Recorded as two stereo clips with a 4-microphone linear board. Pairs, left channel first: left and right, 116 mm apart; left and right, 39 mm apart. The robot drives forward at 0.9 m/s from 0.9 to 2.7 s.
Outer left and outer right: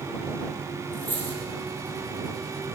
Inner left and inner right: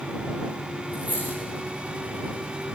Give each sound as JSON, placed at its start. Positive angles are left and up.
{"t": 0.9, "sound": "a dropped coin", "side_deg": -45, "distance_m": 9.0}